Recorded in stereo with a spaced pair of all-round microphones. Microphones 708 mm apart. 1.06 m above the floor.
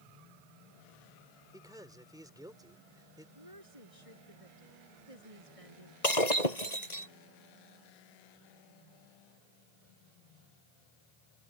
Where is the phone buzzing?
No phone buzzing in this recording.